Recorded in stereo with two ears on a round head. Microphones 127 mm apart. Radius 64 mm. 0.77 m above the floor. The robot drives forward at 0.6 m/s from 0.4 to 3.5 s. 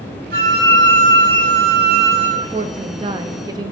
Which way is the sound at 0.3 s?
65° right (ahead or behind).